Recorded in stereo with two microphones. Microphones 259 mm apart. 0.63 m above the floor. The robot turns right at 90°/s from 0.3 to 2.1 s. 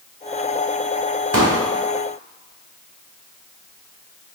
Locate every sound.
1.3 s a pop: 55° right (ahead or behind), 0.9 m; by 1.6 s 80° right, 0.9 m